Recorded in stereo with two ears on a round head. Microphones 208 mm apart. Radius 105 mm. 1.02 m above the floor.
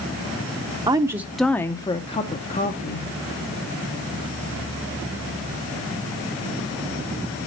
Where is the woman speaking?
20° right (ahead or behind), 0.7 m; by 3.1 s 40° left (ahead or behind), 1.2 m.